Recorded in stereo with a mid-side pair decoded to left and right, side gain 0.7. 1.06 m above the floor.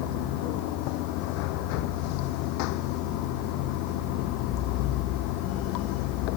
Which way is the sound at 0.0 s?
70° left.